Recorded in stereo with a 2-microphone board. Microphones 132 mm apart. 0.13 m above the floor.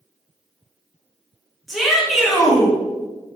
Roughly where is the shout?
Centre.